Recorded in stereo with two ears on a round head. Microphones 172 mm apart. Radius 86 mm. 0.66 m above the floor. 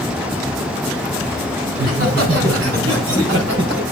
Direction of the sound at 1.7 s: 50° right (ahead or behind).